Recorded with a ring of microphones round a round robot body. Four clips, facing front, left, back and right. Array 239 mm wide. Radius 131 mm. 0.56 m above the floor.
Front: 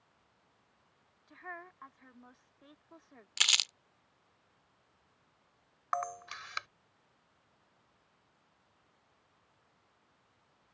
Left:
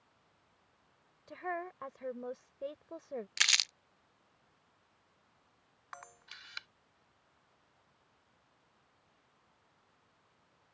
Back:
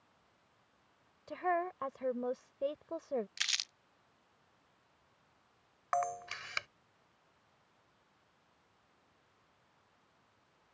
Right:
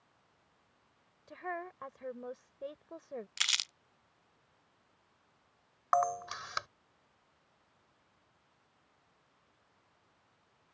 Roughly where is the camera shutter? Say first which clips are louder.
Right 23 dB, back 2 dB; behind right.